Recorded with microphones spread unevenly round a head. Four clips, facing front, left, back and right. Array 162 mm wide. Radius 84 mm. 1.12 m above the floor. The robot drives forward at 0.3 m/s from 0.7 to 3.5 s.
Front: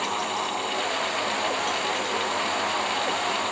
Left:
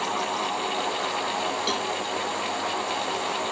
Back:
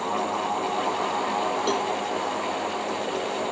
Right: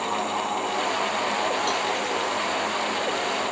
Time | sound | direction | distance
1.7 | a cowbell | 175° left | ?